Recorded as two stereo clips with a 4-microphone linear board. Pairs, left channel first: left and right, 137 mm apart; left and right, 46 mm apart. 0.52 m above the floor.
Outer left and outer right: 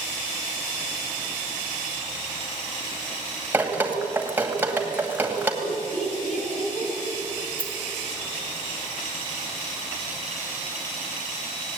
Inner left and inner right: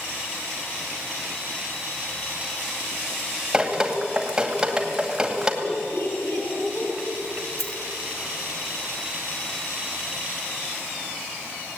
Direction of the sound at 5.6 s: 55° left (ahead or behind).